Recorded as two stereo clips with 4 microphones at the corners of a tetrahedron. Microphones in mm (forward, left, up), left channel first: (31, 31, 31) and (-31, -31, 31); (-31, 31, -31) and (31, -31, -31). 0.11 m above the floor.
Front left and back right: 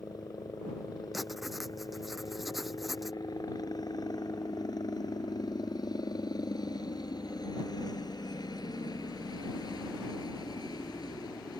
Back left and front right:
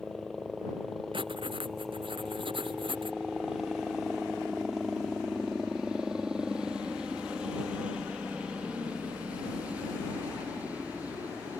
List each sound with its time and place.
0.0 s a helicopter: 55° left; by 11.6 s 25° left
1.1 s writing: 45° right